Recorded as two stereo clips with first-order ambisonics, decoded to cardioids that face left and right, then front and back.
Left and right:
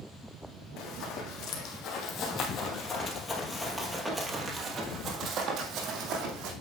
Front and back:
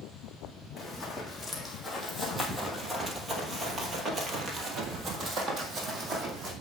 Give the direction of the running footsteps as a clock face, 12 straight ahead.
9 o'clock.